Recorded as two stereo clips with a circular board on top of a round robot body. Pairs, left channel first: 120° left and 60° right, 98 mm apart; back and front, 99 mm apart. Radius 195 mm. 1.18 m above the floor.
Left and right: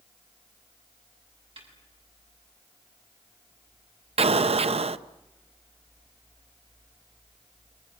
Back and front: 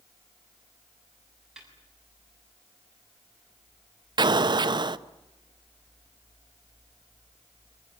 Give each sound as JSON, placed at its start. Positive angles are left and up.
{"t": 1.6, "sound": "a snare drum", "azimuth_deg": -85, "distance_m": 7.0}
{"t": 4.2, "sound": "an explosion", "azimuth_deg": -45, "distance_m": 0.8}